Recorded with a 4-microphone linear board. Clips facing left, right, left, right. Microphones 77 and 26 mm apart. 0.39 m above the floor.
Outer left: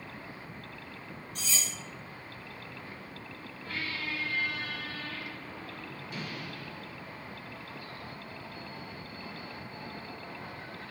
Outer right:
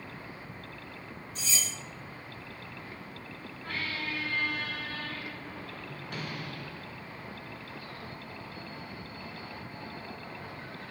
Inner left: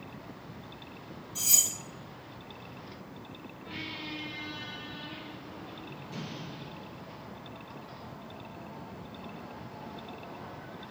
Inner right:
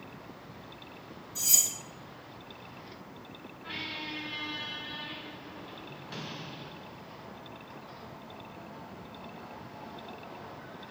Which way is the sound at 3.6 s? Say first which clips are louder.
Outer right 1 dB, inner right 2 dB; 55° right (ahead or behind).